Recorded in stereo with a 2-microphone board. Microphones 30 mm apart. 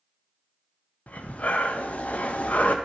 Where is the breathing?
50° left (ahead or behind), 0.6 m.